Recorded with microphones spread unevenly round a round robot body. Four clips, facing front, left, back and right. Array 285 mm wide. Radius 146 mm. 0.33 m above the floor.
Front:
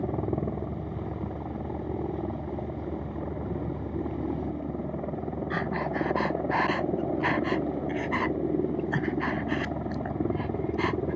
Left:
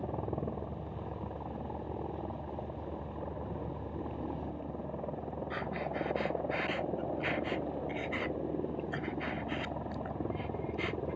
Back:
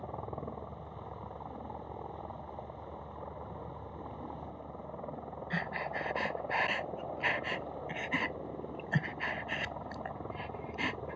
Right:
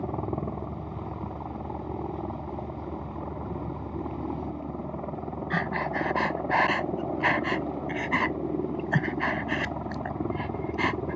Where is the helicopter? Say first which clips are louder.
Right 5 dB, front 11 dB; 20° right.